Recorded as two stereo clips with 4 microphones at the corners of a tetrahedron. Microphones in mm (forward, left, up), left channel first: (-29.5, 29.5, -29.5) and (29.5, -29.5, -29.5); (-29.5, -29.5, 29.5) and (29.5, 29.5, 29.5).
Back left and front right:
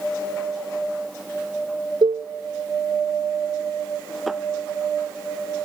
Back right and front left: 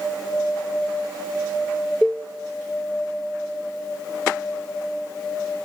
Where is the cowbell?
60° right, 0.9 m.